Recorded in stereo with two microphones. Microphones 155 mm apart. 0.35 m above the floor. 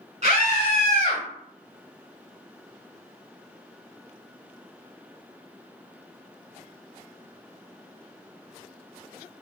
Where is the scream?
50° right (ahead or behind), 1.4 m; by 1.2 s 45° right (ahead or behind), 1.4 m.